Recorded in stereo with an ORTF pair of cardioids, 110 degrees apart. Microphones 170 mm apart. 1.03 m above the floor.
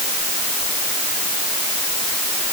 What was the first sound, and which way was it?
Only background noise.